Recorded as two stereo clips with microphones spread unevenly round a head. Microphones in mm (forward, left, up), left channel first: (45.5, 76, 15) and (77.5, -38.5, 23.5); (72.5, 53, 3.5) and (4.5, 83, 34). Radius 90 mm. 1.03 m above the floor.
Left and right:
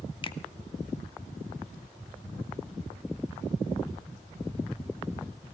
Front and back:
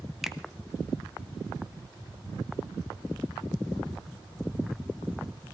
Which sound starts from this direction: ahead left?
A finger snap, at 0.2 s.